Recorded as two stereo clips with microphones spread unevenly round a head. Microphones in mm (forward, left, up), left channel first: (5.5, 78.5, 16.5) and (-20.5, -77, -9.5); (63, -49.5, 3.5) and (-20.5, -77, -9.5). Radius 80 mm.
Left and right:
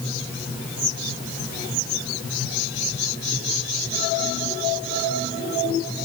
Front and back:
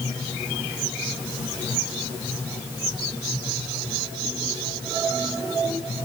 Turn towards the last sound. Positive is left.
No sound to turn to.